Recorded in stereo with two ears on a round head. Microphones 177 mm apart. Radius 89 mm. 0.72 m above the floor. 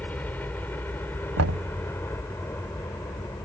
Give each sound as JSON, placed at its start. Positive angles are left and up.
{"t": 0.0, "sound": "a helicopter", "side_deg": 10}
{"t": 1.4, "sound": "knocking", "side_deg": -85}